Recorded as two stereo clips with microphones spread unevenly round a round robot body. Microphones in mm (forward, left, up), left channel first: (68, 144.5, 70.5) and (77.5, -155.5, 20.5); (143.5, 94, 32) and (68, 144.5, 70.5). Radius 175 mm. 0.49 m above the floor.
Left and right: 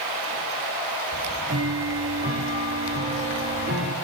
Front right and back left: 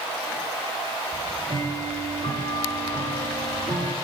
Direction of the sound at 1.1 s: 155° right.